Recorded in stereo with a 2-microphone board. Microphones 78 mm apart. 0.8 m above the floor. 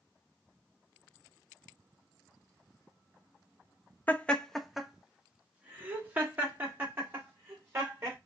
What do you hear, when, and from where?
4.1 s laughter: 25° left (ahead or behind), 0.6 m; by 8.2 s 30° right (ahead or behind), 2.5 m